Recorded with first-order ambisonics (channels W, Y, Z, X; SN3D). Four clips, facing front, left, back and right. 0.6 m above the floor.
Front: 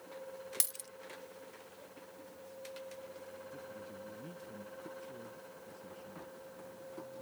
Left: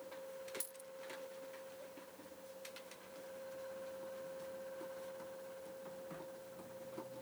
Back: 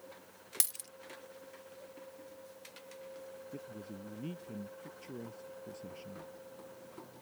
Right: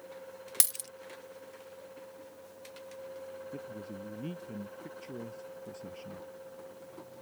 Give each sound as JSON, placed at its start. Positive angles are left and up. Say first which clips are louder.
{"t": 0.6, "sound": "a dropped coin", "louder": "right 16 dB, back 4 dB", "azimuth_deg": -95}
{"t": 3.5, "sound": "a man speaking", "louder": "right 5 dB, back 1 dB", "azimuth_deg": -120}